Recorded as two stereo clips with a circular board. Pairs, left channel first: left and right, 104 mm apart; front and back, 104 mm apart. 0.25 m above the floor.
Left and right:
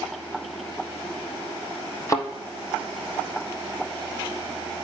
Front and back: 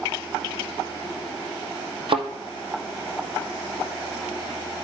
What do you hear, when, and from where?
2.1 s a thud: 150° left, 1.1 m